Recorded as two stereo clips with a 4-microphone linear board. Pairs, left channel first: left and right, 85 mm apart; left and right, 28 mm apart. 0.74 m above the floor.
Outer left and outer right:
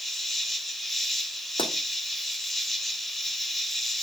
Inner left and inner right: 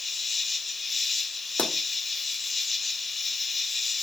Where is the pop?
70° left (ahead or behind), 1.9 m.